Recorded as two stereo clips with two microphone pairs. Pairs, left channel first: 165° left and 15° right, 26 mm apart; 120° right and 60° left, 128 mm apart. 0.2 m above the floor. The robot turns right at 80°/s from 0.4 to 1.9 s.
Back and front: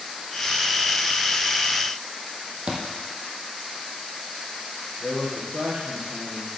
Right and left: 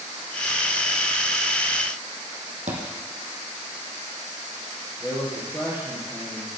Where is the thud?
35° left, 3 m.